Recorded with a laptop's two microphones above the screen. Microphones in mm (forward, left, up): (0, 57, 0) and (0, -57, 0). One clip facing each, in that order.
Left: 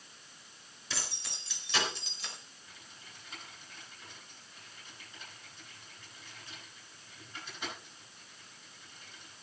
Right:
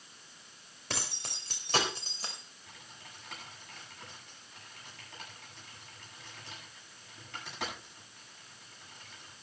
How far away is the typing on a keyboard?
About 7.5 m.